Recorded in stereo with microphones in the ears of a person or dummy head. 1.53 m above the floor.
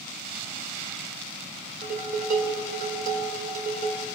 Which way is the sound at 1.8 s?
55° right (ahead or behind).